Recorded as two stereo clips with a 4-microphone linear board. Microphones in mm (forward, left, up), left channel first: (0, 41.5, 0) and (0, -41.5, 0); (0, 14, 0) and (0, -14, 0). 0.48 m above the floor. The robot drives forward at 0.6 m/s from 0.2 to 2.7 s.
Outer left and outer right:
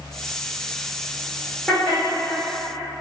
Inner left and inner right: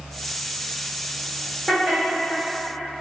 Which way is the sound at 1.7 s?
5° left (ahead or behind).